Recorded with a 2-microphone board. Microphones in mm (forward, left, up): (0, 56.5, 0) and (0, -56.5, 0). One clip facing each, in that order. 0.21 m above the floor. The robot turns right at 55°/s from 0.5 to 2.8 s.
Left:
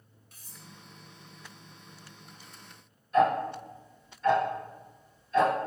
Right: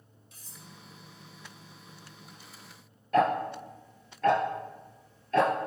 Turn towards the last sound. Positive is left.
turn(degrees=-80)